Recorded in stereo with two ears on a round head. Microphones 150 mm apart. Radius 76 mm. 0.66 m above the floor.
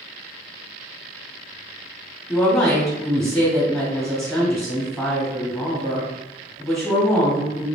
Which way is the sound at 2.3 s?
Centre (ahead or behind).